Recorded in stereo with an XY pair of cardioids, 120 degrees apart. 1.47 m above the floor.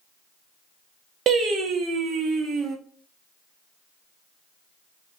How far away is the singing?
About 0.9 m.